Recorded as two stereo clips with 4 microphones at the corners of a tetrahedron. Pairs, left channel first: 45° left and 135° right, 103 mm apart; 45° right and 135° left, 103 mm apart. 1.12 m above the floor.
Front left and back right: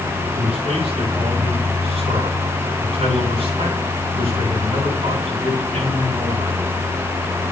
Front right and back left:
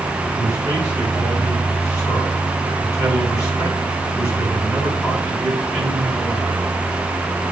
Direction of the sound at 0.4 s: 110° right.